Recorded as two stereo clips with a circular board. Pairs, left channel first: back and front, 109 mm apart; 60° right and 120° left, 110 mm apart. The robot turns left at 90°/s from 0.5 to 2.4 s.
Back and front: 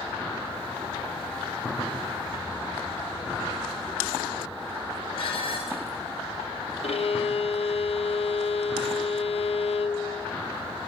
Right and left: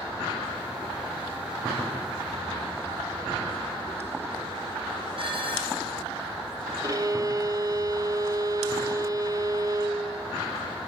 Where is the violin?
175° left, 0.7 m.